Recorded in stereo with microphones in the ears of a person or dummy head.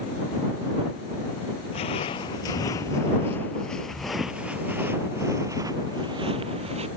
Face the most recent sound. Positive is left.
turn(degrees=-35)  # may be behind; listen again after turning